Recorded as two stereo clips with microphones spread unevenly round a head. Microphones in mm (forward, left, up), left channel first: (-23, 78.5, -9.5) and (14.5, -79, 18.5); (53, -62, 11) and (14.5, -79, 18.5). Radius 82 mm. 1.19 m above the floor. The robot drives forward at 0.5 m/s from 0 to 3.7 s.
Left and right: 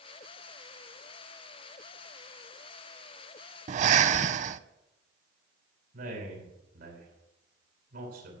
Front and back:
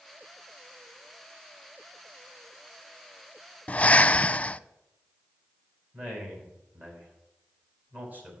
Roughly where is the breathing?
Ahead right.